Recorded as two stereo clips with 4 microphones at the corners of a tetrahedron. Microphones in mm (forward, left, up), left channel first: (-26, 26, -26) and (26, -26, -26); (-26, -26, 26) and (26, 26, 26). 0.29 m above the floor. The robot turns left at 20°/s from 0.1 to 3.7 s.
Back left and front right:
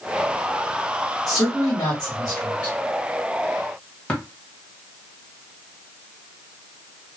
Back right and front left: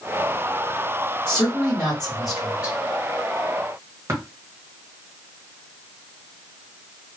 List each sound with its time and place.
1.3 s a man speaking: 150° left, 1.5 m; by 2.8 s 120° left, 1.5 m
4.1 s tapping: 75° left, 1.4 m